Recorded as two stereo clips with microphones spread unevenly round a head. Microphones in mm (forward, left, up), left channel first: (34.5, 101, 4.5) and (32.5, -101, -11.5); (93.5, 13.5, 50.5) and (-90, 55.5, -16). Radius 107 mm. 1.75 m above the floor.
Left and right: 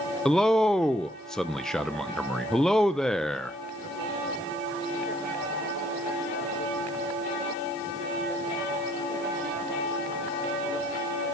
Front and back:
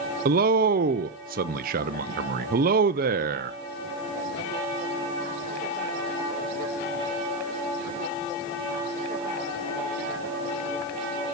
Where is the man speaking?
160° left, 0.5 m.